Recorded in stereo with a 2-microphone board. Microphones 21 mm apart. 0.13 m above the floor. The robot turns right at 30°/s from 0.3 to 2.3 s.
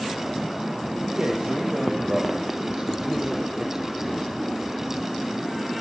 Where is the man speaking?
70° right, 5 m; by 4.3 s 30° right, 5 m.